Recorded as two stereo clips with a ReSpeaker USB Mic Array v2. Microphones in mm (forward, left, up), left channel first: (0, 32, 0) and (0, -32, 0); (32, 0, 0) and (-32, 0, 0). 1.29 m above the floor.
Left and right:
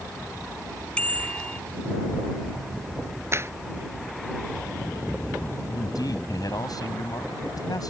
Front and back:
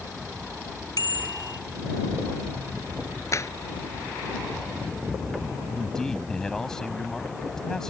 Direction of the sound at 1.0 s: 15° left.